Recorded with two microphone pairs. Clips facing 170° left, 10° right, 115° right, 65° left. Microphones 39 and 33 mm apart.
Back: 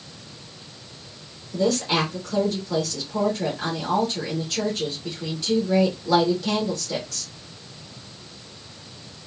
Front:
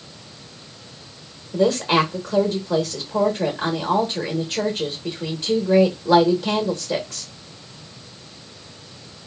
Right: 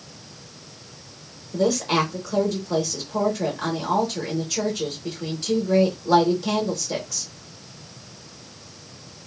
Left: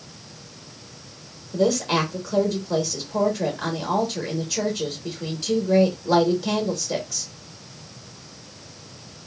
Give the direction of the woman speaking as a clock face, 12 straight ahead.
1 o'clock.